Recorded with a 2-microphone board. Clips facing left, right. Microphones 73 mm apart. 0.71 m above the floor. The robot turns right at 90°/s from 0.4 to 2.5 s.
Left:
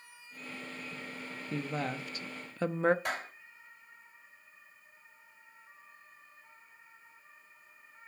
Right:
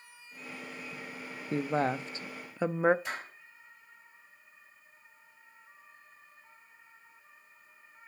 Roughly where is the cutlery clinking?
I don't hear cutlery clinking.